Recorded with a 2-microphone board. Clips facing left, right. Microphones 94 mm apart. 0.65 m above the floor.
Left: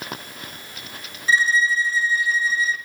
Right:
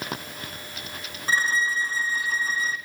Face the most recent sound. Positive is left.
turn(degrees=-45)  # may be behind; listen again after turning